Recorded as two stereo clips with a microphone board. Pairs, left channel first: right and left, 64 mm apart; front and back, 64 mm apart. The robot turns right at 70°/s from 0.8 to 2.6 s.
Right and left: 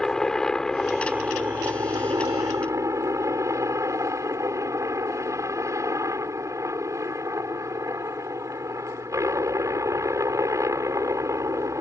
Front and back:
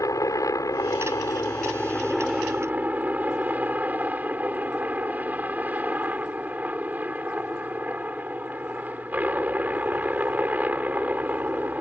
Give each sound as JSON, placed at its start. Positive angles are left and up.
{"t": 0.0, "sound": "a helicopter", "azimuth_deg": -10}